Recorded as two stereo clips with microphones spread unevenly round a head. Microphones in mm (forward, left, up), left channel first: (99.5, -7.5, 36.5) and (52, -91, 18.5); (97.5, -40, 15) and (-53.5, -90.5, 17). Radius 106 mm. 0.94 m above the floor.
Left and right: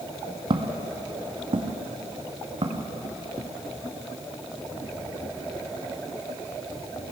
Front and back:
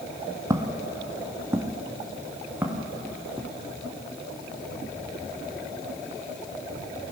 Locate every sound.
0.5 s footsteps: 100° right, 1.3 m; by 3.5 s 85° right, 3.5 m